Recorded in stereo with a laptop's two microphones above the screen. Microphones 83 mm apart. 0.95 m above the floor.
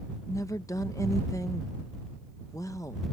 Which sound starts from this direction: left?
A woman speaking, at 0.3 s.